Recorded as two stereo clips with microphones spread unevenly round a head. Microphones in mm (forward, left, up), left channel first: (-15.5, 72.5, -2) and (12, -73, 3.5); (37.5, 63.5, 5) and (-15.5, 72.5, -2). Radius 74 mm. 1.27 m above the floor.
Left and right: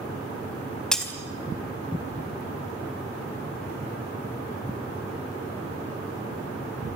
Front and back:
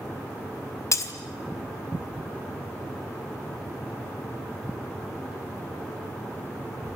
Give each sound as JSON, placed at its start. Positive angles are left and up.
{"t": 0.9, "sound": "breaking glass", "azimuth_deg": 15, "distance_m": 3.0}